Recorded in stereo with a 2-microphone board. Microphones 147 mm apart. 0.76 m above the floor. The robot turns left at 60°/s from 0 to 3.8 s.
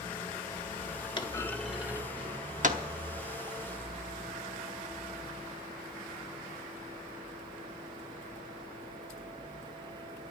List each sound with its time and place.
1.2 s a clunk: 30° left (ahead or behind), 1.0 m; by 2.8 s 65° right (ahead or behind), 1.0 m